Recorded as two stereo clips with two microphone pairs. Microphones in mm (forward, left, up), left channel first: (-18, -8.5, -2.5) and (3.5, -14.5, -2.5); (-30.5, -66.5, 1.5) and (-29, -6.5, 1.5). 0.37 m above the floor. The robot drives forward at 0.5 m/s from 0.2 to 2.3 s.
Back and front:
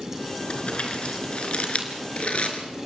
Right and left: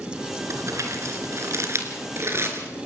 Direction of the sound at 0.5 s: 120° left.